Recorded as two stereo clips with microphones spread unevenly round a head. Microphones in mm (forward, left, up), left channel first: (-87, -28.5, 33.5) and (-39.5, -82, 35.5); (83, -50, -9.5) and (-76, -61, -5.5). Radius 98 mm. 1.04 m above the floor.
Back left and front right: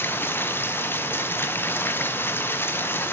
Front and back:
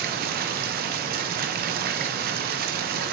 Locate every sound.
0.0 s running water: 175° right, 0.7 m